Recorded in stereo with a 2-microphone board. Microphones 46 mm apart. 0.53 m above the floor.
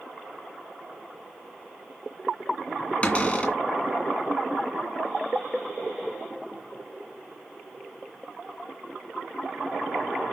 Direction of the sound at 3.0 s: 30° left (ahead or behind).